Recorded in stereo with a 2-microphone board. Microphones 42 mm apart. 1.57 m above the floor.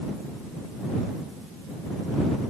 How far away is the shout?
No shout in this recording.